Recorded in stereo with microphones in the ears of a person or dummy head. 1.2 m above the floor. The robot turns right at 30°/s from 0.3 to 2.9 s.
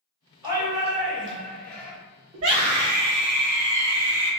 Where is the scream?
65° right (ahead or behind), 0.8 m; by 4.3 s 75° right (ahead or behind), 0.8 m.